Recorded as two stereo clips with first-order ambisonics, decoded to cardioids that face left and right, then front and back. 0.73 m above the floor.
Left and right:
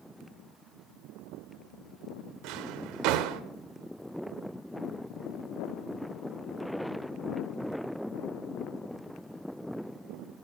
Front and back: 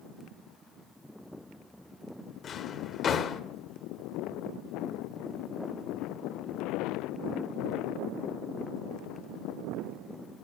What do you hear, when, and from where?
2.4 s a drawer: 65° right, 1.5 m